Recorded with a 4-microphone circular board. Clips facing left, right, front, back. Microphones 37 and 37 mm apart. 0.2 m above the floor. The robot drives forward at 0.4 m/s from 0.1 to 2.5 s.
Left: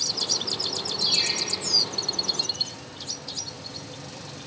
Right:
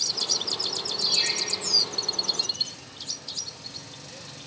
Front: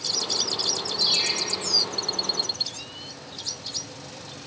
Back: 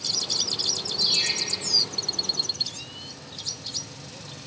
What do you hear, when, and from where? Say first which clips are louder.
1.0 s a ringtone: left 1 dB, even; 65° left, 2 m; by 1.3 s 70° left, 2 m